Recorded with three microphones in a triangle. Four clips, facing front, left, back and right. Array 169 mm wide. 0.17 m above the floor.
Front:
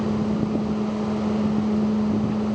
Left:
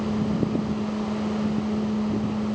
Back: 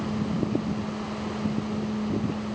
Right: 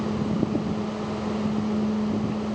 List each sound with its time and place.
Only background noise.